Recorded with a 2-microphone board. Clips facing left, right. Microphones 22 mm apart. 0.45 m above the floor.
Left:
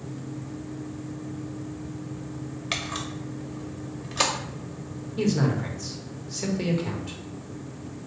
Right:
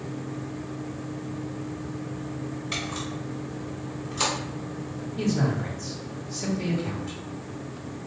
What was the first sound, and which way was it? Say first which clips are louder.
A camera shutter: left 2 dB; 65° left (ahead or behind).